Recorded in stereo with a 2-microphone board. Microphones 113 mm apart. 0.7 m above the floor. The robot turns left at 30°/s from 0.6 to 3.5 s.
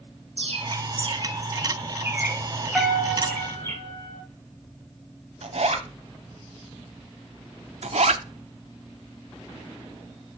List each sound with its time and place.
0.4 s a bird: 60° right (ahead or behind), 1.7 m; by 3.8 s 25° left (ahead or behind), 1.7 m
2.8 s a piano: 5° right (ahead or behind), 4.5 m; by 4.2 s 15° left (ahead or behind), 4.5 m
5.4 s a zipper: 75° right (ahead or behind), 1.2 m
7.8 s a zipper: 75° right (ahead or behind), 0.7 m